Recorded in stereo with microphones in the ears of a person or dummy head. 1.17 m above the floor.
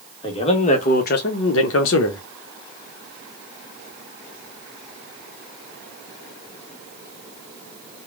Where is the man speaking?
20° left (ahead or behind), 0.9 m; by 2.3 s 65° left (ahead or behind), 0.7 m.